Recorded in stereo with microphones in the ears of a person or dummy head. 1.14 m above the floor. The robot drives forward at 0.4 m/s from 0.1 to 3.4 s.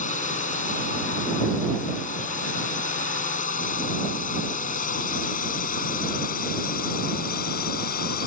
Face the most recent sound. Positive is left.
turn(degrees=60)  # may be behind; listen again after turning